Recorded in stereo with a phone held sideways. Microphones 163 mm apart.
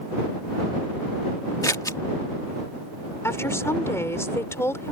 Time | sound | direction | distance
1.6 | scissors | 20° left (ahead or behind) | ?
3.2 | a woman speaking | 15° left (ahead or behind) | ?